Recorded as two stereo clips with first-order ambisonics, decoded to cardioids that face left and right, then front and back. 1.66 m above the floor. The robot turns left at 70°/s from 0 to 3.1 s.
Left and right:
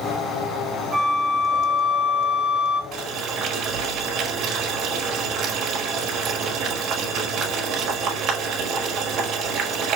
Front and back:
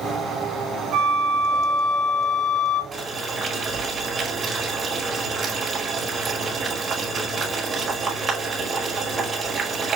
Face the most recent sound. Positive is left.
turn(degrees=-125)